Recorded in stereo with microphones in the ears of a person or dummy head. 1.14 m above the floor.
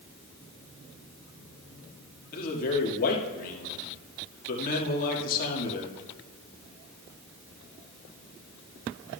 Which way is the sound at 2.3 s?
50° left (ahead or behind).